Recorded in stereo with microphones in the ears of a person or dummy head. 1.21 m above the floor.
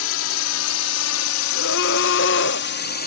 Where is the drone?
75° left (ahead or behind); by 3.1 s 50° left (ahead or behind).